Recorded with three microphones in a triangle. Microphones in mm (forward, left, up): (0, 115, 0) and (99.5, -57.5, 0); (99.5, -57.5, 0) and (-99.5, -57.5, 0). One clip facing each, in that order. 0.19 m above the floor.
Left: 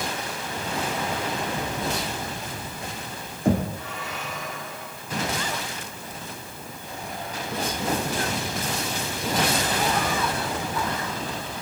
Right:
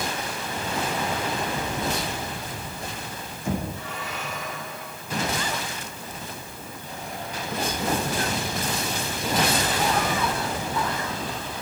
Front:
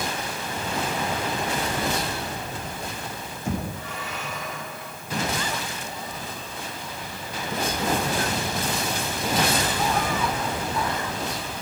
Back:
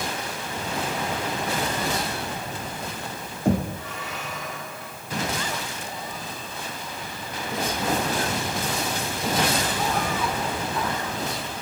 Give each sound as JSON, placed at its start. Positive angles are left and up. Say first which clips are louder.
{"t": 3.5, "sound": "knocking", "louder": "left 6 dB, back 7 dB", "azimuth_deg": 150, "distance_m": 6.0}